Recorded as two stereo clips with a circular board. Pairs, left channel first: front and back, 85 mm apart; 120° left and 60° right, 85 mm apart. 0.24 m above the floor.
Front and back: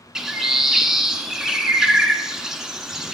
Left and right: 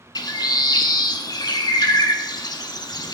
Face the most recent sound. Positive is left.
turn(degrees=95)